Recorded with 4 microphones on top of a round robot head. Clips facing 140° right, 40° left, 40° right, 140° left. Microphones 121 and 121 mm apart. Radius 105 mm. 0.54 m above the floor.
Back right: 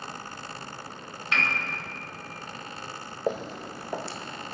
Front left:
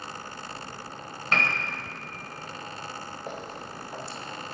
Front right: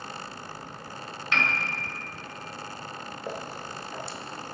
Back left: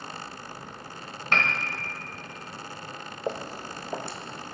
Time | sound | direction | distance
1.3 | a piano | 95° left | 2.0 m
3.3 | footsteps | 150° right | 0.9 m